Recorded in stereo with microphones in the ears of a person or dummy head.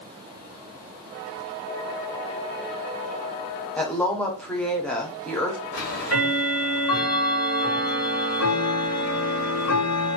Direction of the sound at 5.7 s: 85° left.